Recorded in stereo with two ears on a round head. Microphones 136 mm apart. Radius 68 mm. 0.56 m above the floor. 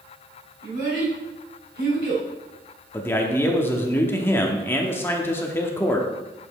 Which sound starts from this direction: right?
A child speaking, at 0.6 s.